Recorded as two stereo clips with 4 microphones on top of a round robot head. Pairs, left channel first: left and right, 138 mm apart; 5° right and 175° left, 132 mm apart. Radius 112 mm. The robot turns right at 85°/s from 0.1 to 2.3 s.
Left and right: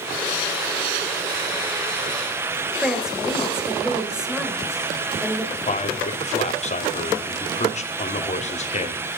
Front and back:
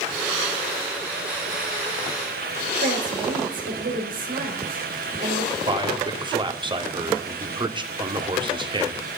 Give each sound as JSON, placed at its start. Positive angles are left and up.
{"t": 2.8, "sound": "a woman speaking", "azimuth_deg": -175, "distance_m": 4.5}
{"t": 5.7, "sound": "a man speaking", "azimuth_deg": 125, "distance_m": 2.5}